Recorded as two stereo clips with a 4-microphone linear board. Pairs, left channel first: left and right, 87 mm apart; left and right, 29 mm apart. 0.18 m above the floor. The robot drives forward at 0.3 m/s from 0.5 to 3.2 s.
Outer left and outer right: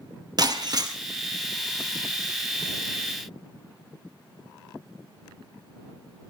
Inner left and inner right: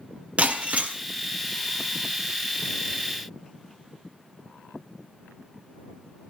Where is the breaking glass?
50° right (ahead or behind), 3 m; by 0.9 s 45° right (ahead or behind), 3 m.